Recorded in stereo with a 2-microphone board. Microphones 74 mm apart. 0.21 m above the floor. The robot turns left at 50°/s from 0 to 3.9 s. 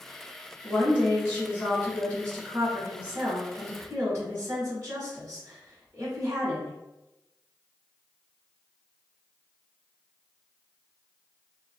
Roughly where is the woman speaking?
Left.